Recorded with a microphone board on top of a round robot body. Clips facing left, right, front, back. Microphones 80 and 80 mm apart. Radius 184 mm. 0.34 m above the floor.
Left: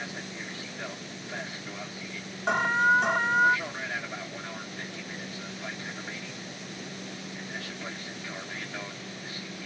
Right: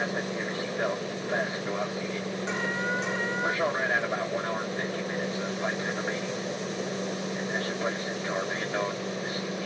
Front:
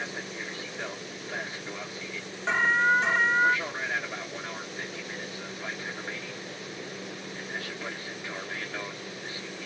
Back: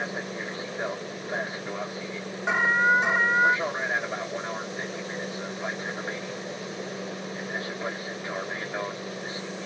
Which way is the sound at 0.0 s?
125° right.